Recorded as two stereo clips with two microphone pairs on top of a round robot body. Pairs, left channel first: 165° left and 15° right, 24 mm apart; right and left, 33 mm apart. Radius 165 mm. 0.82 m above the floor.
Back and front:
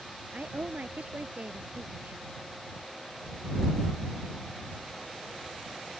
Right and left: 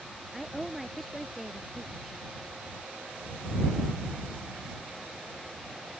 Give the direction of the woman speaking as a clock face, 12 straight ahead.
12 o'clock.